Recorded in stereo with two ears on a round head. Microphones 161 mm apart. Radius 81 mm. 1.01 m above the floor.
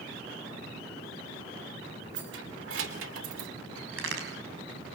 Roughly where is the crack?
Right.